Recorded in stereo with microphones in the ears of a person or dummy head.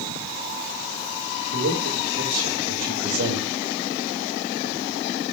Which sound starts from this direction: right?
A man speaking, at 1.5 s.